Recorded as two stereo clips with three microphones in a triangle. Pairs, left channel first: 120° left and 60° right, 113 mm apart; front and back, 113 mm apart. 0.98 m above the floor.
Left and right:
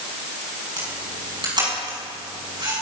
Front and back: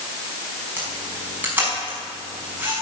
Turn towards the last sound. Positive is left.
turn(degrees=-105)